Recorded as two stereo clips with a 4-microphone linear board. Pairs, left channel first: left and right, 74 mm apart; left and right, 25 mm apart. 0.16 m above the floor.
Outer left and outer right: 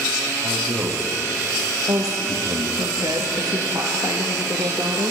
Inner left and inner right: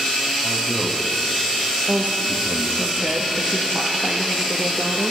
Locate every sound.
0.4 s a man speaking: 55° right (ahead or behind), 5.5 m
1.9 s a woman speaking: 55° right (ahead or behind), 3 m